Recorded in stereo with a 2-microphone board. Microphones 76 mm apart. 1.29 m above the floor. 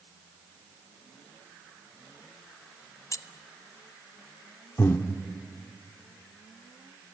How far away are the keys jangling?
About 0.6 m.